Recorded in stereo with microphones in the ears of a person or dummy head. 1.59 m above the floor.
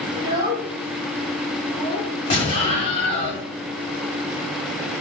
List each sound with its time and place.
0.1 s a child speaking: 35° right (ahead or behind), 1.1 m; by 2.1 s 30° left (ahead or behind), 1.4 m
2.3 s an explosion: 35° left (ahead or behind), 1.7 m